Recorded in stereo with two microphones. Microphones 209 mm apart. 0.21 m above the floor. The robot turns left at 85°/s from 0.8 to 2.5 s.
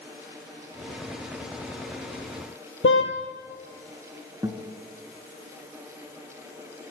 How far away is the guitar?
About 1.9 m.